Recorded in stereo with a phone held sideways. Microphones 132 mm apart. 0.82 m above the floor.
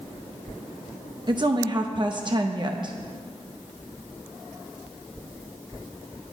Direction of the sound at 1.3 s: 35° right (ahead or behind).